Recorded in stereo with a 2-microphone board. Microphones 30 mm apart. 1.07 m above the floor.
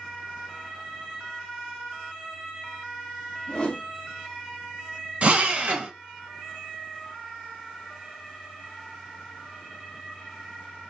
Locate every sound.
3.5 s a whoosh: 30° left (ahead or behind), 0.7 m
5.2 s a drill: 45° right (ahead or behind), 0.9 m